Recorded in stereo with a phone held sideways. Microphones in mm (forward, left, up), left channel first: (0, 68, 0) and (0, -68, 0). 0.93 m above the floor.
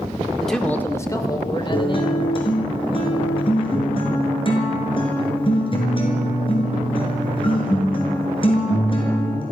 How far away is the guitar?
About 5.5 m.